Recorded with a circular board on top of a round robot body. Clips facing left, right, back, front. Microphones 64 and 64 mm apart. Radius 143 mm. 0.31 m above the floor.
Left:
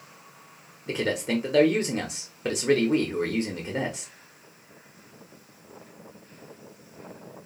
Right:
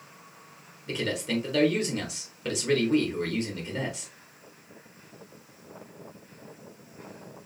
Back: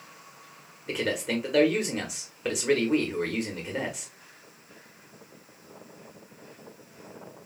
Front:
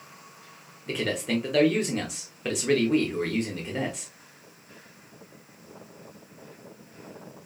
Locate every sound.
0.9 s a man speaking: 100° left, 1.2 m